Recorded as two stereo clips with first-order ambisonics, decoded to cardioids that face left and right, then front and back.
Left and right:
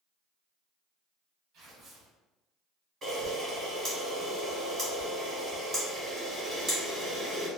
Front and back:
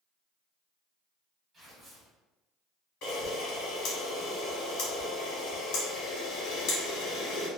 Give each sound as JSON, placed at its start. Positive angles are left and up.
{"t": 1.5, "sound": "tearing paper", "azimuth_deg": -110, "distance_m": 1.3}
{"t": 3.0, "sound": "a camera shutter", "azimuth_deg": -25, "distance_m": 1.3}